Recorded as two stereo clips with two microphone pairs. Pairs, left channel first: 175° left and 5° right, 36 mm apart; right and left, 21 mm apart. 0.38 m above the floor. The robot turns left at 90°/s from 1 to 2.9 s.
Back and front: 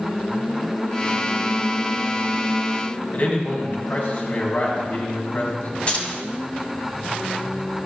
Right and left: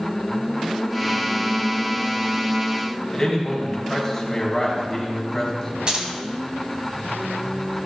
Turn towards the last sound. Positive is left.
turn(degrees=125)